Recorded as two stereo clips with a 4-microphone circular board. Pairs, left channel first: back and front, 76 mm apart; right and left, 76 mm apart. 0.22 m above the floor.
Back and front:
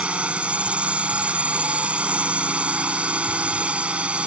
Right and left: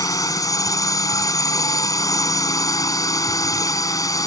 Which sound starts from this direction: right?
A drone, at 0.0 s.